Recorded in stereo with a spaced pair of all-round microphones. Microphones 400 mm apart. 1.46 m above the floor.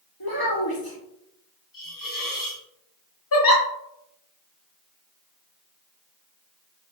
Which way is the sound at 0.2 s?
60° left (ahead or behind).